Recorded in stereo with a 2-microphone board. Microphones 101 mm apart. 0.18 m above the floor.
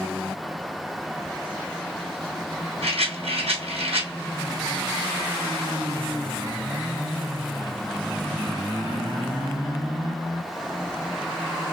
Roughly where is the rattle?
Right.